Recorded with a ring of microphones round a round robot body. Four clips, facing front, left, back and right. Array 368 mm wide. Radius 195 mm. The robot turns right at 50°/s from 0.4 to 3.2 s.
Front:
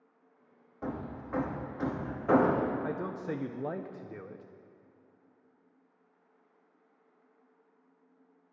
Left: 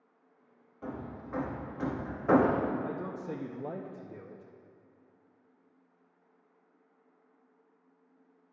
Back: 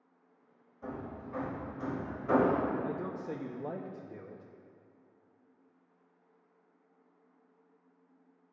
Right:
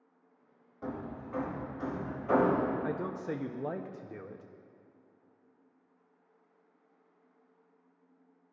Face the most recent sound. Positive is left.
turn(degrees=-40)